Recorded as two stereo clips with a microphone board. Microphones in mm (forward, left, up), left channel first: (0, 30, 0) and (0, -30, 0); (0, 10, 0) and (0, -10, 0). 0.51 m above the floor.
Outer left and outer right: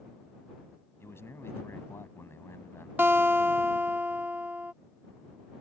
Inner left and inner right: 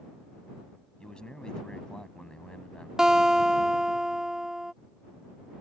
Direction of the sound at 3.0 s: 30° right (ahead or behind).